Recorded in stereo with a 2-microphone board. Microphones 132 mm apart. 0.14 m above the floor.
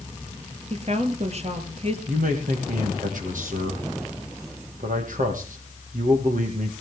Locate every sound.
0.7 s a woman speaking: 50° right (ahead or behind), 2.5 m
2.1 s a man speaking: 75° right (ahead or behind), 5 m